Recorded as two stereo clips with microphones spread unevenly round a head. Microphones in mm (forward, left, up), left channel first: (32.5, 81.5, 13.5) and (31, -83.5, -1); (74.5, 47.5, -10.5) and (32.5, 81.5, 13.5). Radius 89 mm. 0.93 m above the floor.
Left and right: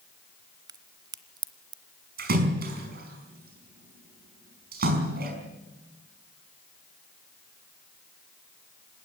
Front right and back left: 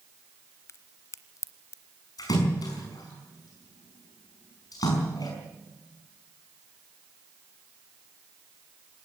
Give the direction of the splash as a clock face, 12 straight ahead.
2 o'clock.